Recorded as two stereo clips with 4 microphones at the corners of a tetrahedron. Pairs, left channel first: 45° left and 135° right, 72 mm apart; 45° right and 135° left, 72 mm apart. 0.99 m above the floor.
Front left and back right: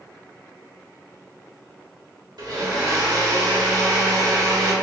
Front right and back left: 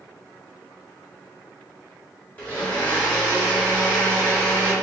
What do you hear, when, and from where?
2.4 s a blender: 110° right, 1.5 m